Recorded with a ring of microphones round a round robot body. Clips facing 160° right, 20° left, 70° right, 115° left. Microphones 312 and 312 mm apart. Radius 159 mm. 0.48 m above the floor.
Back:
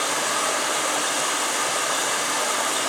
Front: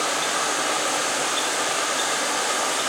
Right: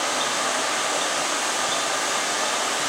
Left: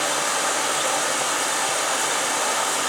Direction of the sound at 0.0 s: 120° left.